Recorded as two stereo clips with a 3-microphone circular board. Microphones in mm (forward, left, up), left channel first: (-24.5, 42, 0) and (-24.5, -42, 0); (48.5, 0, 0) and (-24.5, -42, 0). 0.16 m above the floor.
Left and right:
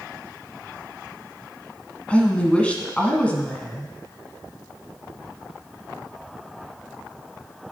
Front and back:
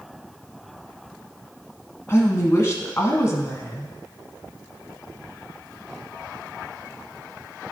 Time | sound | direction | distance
2.1 | a woman speaking | 25° left | 1.2 m